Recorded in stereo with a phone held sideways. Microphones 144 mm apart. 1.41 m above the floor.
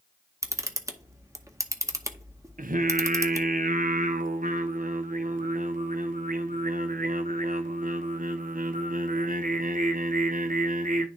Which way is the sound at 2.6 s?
75° right (ahead or behind).